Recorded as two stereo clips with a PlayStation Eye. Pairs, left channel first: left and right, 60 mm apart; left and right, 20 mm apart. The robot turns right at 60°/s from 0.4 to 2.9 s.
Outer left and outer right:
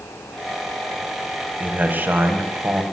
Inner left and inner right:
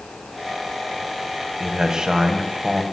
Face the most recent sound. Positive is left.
turn(degrees=-60)